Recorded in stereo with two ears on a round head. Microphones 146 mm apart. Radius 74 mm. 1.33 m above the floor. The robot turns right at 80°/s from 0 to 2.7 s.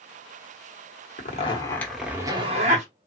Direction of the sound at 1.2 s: 120° left.